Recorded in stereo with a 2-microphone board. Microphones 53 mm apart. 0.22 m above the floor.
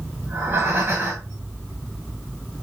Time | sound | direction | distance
0.2 | breathing | 40° right (ahead or behind) | 5.5 m